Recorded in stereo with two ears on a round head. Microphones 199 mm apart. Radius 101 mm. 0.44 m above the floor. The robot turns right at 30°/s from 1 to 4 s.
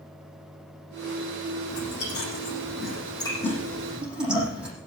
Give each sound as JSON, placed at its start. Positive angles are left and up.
{"t": 1.7, "sound": "chewing", "side_deg": 65, "distance_m": 9.0}